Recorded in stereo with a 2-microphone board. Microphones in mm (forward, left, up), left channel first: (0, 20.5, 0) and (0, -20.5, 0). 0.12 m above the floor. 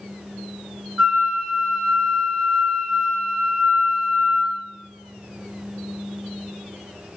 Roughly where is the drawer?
No drawer in this recording.